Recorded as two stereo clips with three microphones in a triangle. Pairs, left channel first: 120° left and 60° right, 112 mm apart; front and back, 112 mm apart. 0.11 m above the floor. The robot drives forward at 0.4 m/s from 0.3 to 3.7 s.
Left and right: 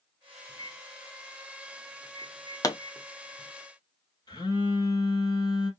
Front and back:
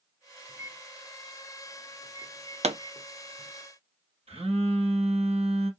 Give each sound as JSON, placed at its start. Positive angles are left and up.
{"t": 0.5, "sound": "a microwave", "azimuth_deg": 120, "distance_m": 1.1}
{"t": 2.6, "sound": "a pop", "azimuth_deg": 180, "distance_m": 0.9}
{"t": 4.3, "sound": "a phone buzzing", "azimuth_deg": 170, "distance_m": 2.5}